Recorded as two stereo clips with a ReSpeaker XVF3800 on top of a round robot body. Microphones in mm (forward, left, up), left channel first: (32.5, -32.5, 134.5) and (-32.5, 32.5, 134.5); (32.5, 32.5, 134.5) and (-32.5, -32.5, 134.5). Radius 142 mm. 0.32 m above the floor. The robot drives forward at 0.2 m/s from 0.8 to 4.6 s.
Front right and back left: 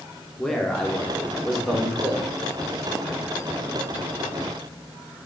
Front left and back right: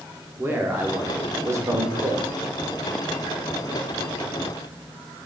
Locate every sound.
0.4 s a man speaking: 120° right, 0.8 m; by 2.2 s 150° right, 0.9 m